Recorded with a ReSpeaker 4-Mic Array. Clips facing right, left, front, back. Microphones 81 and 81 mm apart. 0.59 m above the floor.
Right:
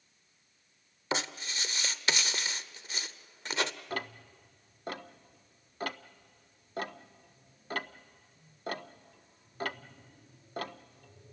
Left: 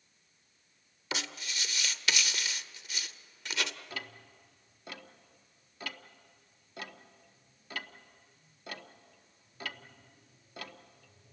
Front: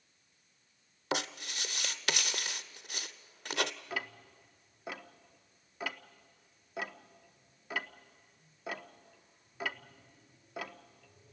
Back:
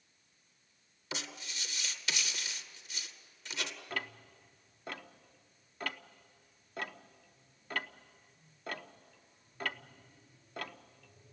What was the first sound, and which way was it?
Writing, 35° right.